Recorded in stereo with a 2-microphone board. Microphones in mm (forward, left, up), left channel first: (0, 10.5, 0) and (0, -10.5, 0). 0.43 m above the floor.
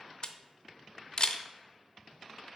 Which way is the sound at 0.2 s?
45° left (ahead or behind).